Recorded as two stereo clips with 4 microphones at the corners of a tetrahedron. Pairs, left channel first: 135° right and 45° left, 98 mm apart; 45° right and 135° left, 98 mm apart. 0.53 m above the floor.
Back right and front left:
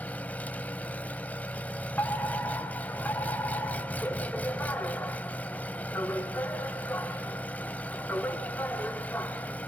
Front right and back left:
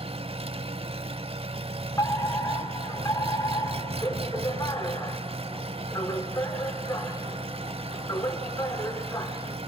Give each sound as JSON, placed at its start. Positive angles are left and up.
{"t": 0.0, "sound": "an engine running", "azimuth_deg": 150, "distance_m": 0.8}
{"t": 2.0, "sound": "a fire alarm", "azimuth_deg": -70, "distance_m": 2.5}